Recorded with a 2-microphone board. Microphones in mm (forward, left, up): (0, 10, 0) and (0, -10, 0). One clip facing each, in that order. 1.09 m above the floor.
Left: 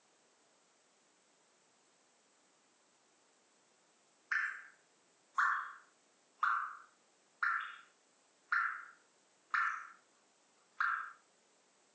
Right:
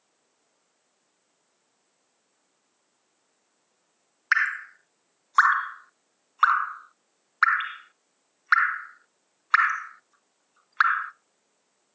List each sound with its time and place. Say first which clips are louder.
4.3 s dripping: right 14 dB; 65° right (ahead or behind), 0.6 m